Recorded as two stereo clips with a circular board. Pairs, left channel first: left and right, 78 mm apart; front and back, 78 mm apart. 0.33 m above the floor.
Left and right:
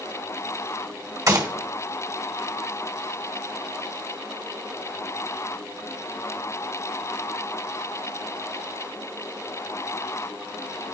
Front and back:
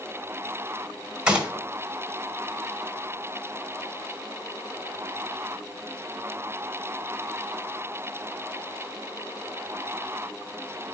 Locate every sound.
1.3 s a gunshot: 105° right, 1.7 m